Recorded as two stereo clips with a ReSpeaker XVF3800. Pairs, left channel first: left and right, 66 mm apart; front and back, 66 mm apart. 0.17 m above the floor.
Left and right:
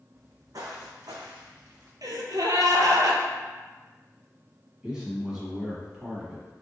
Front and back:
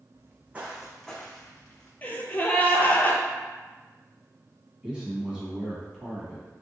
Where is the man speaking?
140° right, 1.0 m.